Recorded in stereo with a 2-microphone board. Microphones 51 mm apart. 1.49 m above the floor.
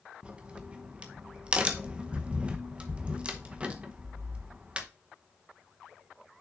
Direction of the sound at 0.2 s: 25° right (ahead or behind).